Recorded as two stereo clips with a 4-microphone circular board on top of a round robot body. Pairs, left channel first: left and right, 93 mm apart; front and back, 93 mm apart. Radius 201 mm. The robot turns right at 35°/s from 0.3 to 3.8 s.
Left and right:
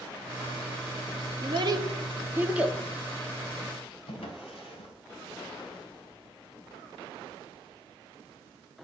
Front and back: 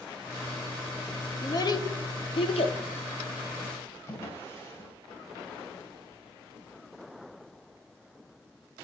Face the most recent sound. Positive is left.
turn(degrees=65)